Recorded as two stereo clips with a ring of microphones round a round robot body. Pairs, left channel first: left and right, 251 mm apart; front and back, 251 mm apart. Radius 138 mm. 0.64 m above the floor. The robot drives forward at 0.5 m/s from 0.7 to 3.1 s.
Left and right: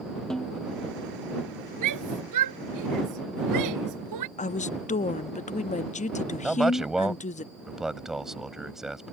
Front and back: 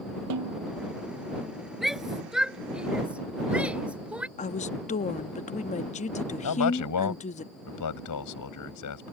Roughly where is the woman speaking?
Ahead left.